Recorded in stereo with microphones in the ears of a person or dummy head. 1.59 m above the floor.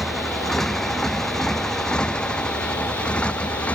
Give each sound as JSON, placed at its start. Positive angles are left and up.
{"t": 0.0, "sound": "a motorcycle", "side_deg": 0}